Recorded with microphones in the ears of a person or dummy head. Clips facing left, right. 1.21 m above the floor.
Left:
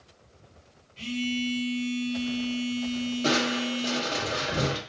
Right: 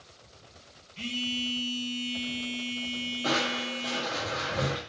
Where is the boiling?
I don't hear boiling.